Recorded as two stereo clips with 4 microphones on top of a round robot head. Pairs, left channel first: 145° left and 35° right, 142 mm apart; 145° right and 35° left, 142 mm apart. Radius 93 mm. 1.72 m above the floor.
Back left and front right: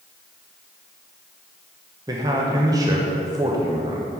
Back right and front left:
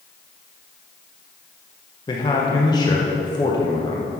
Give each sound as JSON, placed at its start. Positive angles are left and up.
{"t": 2.1, "sound": "a man speaking", "azimuth_deg": -90, "distance_m": 0.5}